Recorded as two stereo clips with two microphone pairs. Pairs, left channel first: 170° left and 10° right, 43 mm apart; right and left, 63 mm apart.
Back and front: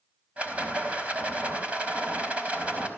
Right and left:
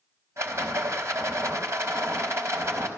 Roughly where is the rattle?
Ahead left.